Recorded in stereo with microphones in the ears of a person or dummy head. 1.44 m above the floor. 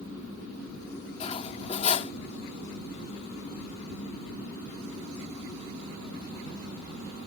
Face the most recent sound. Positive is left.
turn(degrees=35)  # may be behind; listen again after turning